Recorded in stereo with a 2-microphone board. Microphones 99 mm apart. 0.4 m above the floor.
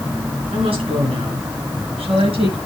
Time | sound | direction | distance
0.5 | a woman speaking | 70° right (ahead or behind) | 5 m